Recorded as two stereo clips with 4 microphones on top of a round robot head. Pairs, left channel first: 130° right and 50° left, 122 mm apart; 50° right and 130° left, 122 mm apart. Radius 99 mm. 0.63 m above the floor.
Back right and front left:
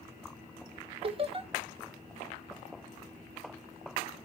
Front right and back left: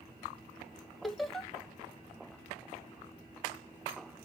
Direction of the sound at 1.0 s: 40° left.